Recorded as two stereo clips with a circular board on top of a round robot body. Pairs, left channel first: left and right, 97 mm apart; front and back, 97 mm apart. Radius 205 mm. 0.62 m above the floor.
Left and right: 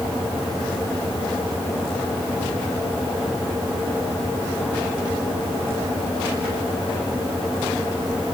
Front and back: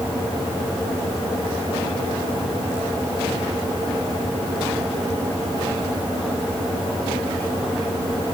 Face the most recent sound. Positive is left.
No sound to turn to.